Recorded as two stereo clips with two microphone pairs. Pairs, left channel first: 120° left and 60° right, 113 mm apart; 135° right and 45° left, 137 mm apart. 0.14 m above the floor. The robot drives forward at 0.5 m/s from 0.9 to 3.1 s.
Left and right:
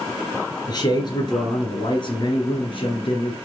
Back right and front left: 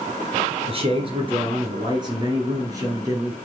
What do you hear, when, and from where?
0.7 s a man speaking: 75° left, 3 m; by 3.4 s 105° left, 3 m